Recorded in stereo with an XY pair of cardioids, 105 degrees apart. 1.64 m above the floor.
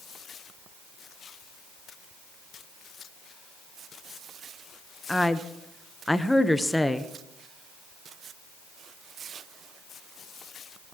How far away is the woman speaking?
About 1.0 m.